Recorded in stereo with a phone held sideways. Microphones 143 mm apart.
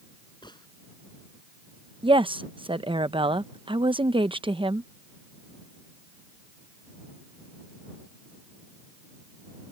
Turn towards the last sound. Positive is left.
turn(degrees=-40)  # may be behind; listen again after turning